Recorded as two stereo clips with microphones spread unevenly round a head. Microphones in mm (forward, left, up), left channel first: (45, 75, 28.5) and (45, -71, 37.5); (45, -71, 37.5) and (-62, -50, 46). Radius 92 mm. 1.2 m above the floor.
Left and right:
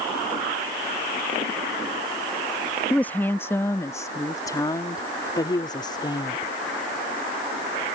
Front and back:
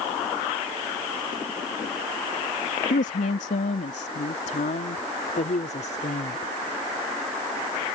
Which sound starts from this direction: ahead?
A woman speaking, at 2.9 s.